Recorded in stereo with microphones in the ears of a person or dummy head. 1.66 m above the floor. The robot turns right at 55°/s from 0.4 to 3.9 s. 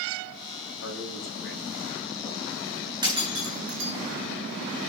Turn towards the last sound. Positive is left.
turn(degrees=-65)  # may be behind; listen again after turning